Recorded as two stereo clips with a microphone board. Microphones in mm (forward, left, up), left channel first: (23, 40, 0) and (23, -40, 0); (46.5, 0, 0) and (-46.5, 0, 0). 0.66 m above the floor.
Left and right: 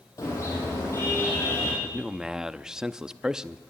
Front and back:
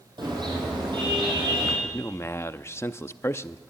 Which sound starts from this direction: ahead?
A man speaking, at 1.8 s.